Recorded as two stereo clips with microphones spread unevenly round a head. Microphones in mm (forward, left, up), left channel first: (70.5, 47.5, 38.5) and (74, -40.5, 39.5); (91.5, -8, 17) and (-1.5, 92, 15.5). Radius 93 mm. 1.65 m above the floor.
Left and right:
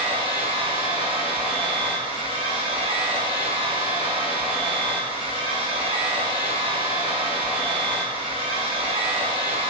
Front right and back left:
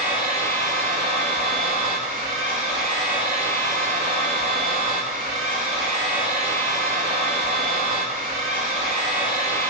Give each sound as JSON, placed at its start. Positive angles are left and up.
{"t": 0.0, "sound": "a machine running", "azimuth_deg": -140, "distance_m": 1.6}